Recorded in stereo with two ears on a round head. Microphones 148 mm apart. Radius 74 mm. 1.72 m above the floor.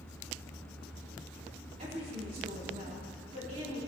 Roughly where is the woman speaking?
Right.